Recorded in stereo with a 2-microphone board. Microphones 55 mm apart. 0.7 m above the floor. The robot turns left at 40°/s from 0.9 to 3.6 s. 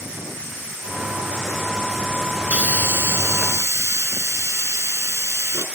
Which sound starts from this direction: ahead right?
A hiss, at 2.5 s.